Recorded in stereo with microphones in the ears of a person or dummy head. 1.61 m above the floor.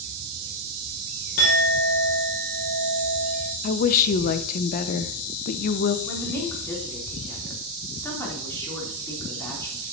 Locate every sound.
1.4 s a clink: 45° left (ahead or behind), 1.0 m
3.6 s a woman speaking: 45° left (ahead or behind), 0.7 m
6.1 s a woman speaking: 5° left (ahead or behind), 2.5 m